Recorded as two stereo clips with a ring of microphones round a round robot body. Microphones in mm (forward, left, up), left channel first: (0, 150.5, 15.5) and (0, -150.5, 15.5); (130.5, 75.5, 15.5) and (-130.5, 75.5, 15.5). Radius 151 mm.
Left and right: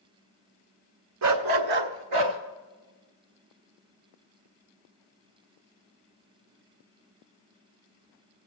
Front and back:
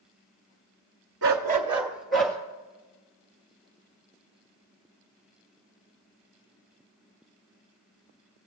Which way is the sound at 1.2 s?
130° right.